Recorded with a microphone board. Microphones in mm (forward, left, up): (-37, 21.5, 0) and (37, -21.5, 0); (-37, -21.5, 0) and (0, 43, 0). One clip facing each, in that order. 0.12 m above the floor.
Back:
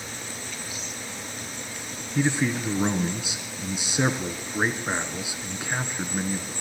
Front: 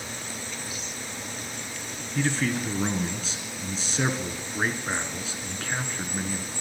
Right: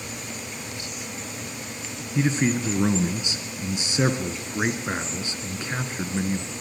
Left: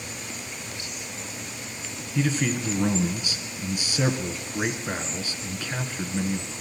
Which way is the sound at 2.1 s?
155° right.